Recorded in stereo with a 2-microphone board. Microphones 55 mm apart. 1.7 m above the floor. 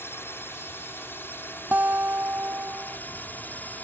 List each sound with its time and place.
0.0 s a drone: 45° left (ahead or behind); by 3.9 s 35° left (ahead or behind)
1.7 s a guitar: 35° right (ahead or behind)